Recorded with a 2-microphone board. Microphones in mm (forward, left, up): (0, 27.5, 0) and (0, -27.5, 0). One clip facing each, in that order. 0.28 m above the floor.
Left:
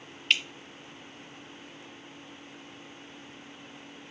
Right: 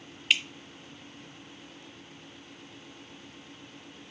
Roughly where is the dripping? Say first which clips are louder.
Even; centre.